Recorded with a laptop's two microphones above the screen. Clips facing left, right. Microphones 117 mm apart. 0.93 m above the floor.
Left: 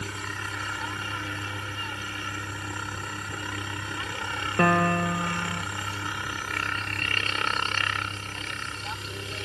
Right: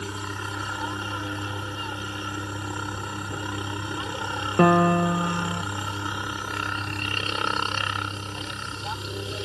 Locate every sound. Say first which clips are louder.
0.0 s a helicopter: right 3 dB; 20° right (ahead or behind)
4.6 s a piano: right 5 dB; 20° right (ahead or behind)